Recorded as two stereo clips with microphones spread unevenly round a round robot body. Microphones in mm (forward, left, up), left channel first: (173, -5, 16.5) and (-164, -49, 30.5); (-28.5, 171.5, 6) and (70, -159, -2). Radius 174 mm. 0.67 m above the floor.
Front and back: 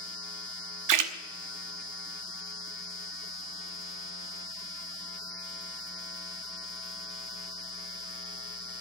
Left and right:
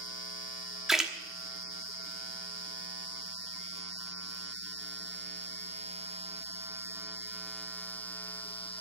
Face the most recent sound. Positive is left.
turn(degrees=-160)